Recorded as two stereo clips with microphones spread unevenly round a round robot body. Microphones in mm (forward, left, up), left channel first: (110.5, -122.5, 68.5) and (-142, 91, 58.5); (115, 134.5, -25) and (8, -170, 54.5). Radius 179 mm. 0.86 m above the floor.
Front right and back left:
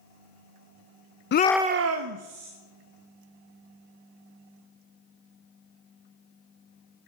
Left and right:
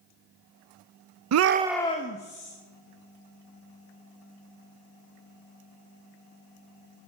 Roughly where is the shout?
Right.